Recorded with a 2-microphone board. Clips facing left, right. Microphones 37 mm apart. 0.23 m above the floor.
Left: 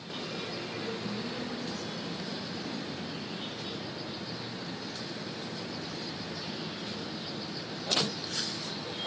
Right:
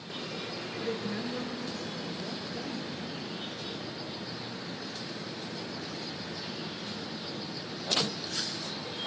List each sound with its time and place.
0.8 s a woman speaking: 60° right (ahead or behind), 4 m; by 3.0 s 40° right (ahead or behind), 5.5 m